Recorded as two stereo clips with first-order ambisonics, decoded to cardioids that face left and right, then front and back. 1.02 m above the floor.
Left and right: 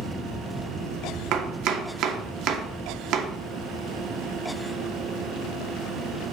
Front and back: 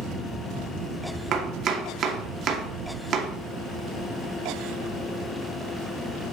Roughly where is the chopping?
Behind right.